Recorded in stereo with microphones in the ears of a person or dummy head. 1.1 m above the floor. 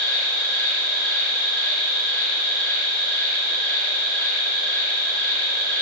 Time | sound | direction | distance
0.0 | an insect | 10° left (ahead or behind) | 1.5 m